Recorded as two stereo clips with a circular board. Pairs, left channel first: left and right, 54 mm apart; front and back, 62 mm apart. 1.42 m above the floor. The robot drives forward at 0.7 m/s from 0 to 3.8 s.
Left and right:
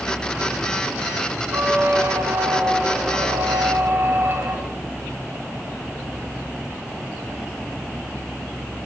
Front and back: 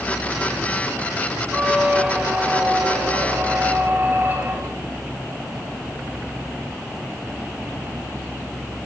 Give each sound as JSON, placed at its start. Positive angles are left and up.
{"t": 1.5, "sound": "a squeak", "azimuth_deg": -100, "distance_m": 3.0}